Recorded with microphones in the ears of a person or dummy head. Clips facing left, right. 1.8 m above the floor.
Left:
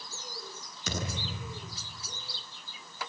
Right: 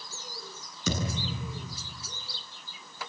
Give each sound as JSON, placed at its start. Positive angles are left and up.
{"t": 0.9, "sound": "a thud", "side_deg": -80, "distance_m": 8.5}